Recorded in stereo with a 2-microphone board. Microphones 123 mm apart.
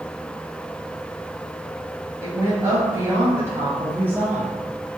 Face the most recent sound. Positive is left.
turn(degrees=-15)  # may be behind; listen again after turning